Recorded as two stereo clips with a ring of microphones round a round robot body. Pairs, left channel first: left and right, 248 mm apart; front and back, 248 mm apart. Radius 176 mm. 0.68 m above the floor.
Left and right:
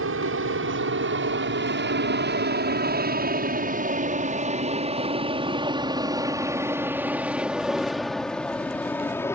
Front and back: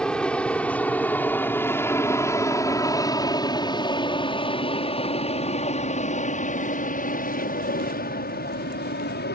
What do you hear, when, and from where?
0.0 s an aircraft: 85° right; by 9.3 s 15° left